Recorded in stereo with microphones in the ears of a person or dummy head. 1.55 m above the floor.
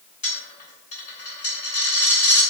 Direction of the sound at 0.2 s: 45° left (ahead or behind).